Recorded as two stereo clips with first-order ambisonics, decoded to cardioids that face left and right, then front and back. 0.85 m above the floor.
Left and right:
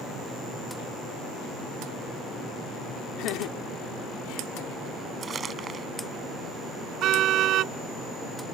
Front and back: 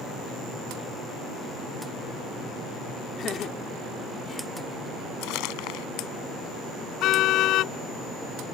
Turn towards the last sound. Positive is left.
turn(degrees=-45)